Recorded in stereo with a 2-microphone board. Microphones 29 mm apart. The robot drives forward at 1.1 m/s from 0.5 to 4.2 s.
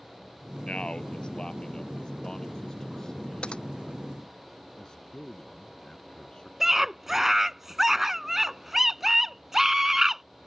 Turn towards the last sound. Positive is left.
turn(degrees=-10)  # may be behind; listen again after turning